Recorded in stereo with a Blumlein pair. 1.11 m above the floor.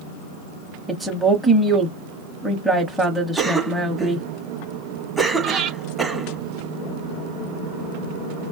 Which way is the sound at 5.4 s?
35° right.